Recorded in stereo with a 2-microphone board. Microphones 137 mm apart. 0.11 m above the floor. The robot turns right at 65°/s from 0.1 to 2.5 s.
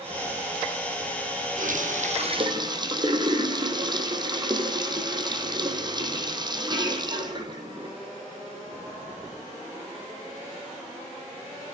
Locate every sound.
1.6 s a running tap: 95° right, 3 m; by 8.0 s 35° right, 3 m